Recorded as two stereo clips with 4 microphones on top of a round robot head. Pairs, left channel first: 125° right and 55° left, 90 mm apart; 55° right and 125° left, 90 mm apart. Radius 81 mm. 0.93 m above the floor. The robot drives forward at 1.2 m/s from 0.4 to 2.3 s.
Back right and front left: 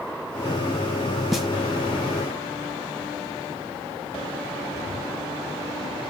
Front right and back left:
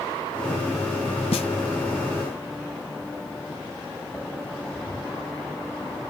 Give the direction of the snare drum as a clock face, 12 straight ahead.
1 o'clock.